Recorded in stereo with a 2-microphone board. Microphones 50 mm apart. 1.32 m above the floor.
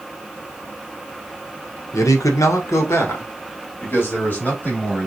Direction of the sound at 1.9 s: 70° left (ahead or behind).